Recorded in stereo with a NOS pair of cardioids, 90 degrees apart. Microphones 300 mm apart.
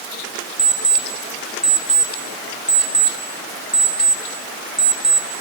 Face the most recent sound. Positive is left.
turn(degrees=-5)